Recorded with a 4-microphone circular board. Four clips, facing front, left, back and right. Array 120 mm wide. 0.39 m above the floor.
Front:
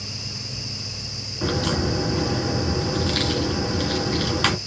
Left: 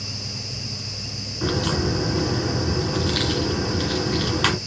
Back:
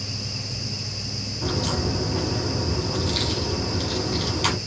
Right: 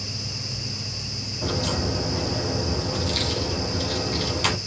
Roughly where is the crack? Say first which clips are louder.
Left 3 dB, front 3 dB; ahead left.